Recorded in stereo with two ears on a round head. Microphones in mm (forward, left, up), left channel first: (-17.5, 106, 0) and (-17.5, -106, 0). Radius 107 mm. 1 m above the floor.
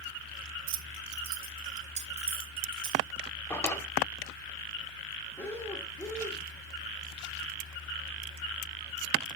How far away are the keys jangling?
About 0.8 m.